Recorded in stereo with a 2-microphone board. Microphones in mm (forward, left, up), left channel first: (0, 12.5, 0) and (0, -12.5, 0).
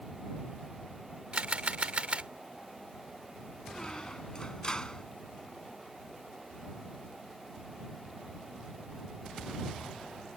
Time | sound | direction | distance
1.3 | a camera shutter | 50° right (ahead or behind) | ?
3.7 | a squeak | 30° left (ahead or behind) | ?